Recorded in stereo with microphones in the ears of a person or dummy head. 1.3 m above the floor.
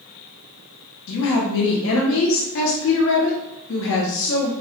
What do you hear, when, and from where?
1.1 s a woman speaking: 65° left (ahead or behind), 0.8 m